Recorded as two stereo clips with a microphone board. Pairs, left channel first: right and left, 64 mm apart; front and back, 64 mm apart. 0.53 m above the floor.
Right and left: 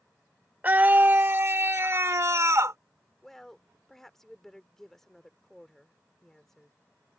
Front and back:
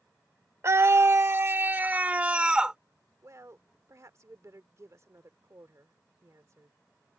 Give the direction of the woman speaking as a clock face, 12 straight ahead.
6 o'clock.